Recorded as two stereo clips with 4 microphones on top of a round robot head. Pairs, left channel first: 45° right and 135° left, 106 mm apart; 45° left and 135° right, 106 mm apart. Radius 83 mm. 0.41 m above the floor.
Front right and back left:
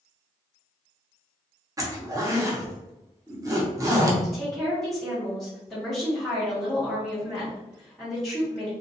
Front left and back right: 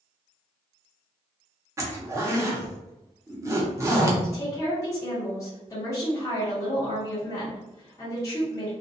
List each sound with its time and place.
1.8 s a zipper: 175° left, 0.9 m
4.2 s a woman speaking: 40° left, 1.0 m